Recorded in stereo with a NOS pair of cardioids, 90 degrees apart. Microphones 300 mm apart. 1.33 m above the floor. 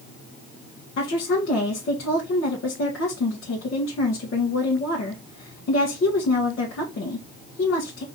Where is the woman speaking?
45° left, 1.6 m.